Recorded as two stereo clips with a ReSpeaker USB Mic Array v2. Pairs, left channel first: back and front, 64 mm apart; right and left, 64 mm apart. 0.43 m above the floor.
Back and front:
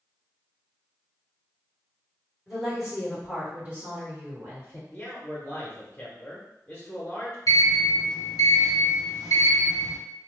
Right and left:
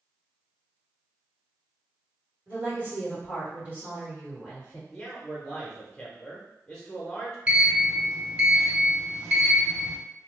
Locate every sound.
2.5 s a woman speaking: 95° left, 1.6 m; by 4.8 s 20° left, 1.8 m
4.9 s a man speaking: 160° right, 0.7 m
7.5 s a sliding door: 155° left, 1.0 m